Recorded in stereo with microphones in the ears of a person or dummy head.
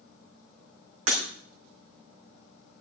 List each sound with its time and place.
1.1 s breaking glass: 45° right (ahead or behind), 2.5 m